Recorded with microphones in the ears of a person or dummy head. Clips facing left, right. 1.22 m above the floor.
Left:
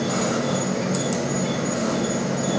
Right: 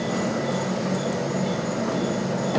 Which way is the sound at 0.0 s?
50° left (ahead or behind).